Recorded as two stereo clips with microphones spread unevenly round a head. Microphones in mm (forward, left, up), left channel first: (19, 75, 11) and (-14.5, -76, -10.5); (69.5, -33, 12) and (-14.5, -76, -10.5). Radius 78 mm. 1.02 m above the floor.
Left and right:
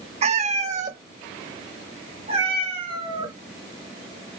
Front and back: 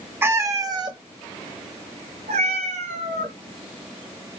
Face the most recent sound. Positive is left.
turn(degrees=-165)